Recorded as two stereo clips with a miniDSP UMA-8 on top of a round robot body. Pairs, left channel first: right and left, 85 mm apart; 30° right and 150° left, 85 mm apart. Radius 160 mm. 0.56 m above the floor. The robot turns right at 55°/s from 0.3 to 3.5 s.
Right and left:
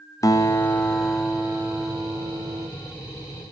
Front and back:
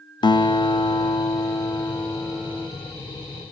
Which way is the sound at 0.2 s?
45° right.